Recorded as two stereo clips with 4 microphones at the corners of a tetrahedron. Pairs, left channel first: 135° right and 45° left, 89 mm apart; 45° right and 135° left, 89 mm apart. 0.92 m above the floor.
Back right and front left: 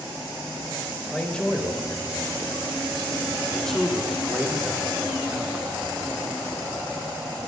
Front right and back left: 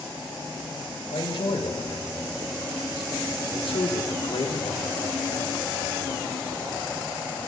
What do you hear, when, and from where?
1.1 s a man speaking: 55° right, 4 m; by 5.8 s 25° right, 0.9 m